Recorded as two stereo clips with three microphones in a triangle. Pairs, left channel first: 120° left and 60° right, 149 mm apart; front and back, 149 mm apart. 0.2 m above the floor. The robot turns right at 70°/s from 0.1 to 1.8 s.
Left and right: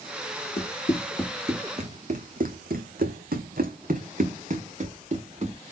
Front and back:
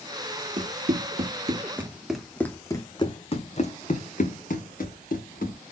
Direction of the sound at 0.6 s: 145° left.